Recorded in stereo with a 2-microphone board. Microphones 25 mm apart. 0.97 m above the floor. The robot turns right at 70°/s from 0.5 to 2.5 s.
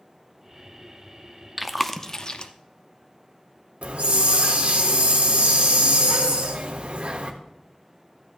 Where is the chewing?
5° right (ahead or behind), 0.5 m; by 2.5 s 45° left (ahead or behind), 0.5 m.